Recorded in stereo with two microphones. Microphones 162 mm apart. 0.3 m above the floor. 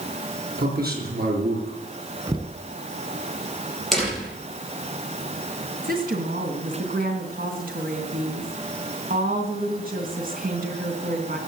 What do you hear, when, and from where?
0.6 s a man speaking: 75° right (ahead or behind), 5.5 m
2.3 s knocking: 30° right (ahead or behind), 1.7 m
3.9 s a door slam: centre (ahead or behind), 6.5 m
5.8 s a woman speaking: 65° right (ahead or behind), 3 m